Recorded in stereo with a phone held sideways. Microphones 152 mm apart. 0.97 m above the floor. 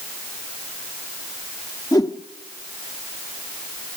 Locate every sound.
1.9 s a whoosh: 25° left (ahead or behind), 1.4 m